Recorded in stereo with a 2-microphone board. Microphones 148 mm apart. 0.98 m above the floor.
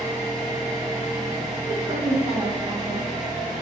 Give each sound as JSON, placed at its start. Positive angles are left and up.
{"t": 0.0, "sound": "an engine running", "side_deg": -35, "distance_m": 1.8}
{"t": 1.7, "sound": "a woman speaking", "side_deg": -40, "distance_m": 0.9}